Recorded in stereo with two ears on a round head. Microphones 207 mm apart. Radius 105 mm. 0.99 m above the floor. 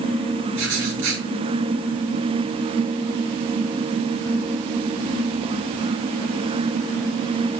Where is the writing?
60° right (ahead or behind), 3.5 m.